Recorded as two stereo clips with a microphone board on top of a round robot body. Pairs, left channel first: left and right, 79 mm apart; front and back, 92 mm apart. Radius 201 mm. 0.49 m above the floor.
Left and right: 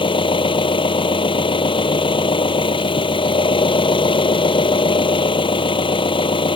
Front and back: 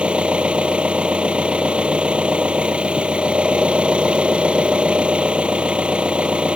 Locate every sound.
0.0 s an engine running: 100° left